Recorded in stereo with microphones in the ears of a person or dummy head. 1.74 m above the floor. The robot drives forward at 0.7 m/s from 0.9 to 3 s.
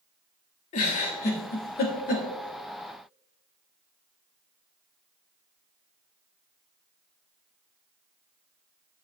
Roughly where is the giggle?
Left.